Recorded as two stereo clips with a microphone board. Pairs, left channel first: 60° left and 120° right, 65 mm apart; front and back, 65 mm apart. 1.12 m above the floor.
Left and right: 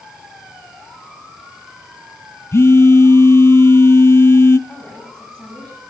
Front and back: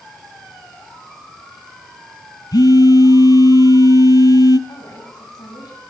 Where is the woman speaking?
20° right, 7.5 m.